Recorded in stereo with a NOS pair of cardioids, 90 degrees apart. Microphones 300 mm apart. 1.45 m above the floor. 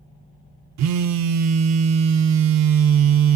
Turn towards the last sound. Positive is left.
turn(degrees=-65)